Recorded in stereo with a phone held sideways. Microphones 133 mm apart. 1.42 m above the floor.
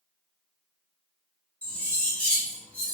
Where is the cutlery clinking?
10° left (ahead or behind), 1.0 m.